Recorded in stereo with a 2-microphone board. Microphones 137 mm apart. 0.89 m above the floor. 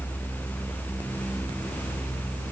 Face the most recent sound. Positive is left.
No sound to turn to.